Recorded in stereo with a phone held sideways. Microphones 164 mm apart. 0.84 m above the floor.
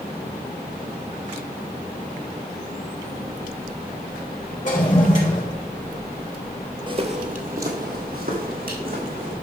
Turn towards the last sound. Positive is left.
turn(degrees=-65)  # may be behind; listen again after turning